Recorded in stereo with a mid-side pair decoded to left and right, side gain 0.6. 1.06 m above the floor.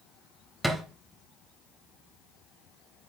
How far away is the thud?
About 3 m.